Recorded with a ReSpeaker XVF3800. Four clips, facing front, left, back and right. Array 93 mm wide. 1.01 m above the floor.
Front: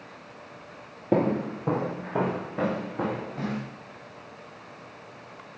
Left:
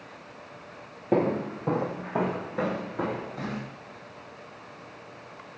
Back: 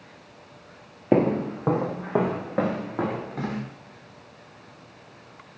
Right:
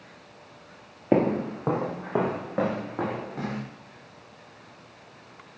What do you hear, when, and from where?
1.1 s footsteps: 145° right, 1.4 m; by 3.6 s 155° right, 5 m